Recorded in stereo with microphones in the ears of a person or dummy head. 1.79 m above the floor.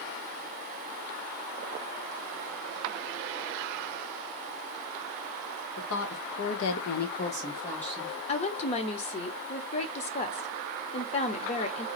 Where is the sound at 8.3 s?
35° left (ahead or behind), 0.8 m.